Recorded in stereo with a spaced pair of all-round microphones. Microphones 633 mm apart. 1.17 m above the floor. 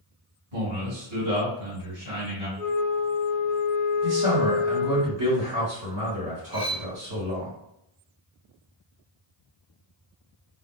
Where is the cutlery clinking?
25° left (ahead or behind), 0.7 m.